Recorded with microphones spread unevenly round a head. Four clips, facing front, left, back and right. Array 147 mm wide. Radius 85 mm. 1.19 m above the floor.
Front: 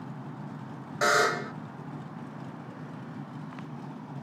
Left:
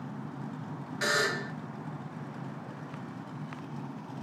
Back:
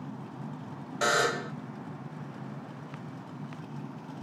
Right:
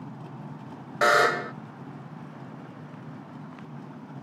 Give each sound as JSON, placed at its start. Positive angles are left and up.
{"t": 1.0, "sound": "a buzzer", "azimuth_deg": -80, "distance_m": 0.5}